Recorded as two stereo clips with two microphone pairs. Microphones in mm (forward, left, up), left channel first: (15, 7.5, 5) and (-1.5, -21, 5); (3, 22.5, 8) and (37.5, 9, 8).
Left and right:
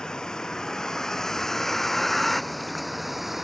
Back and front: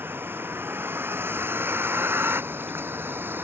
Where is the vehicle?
5° right; by 3.4 s 35° right.